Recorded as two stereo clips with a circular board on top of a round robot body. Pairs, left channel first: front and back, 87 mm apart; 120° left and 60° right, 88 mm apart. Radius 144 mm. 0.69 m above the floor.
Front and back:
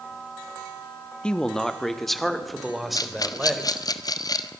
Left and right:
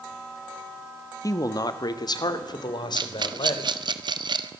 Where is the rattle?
40° right, 1.6 m.